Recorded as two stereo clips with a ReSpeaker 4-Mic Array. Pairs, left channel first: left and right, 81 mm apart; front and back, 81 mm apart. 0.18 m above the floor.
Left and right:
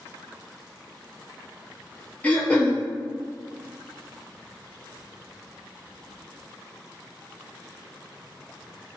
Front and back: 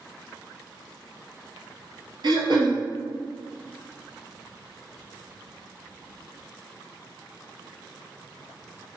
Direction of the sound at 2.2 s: 165° left.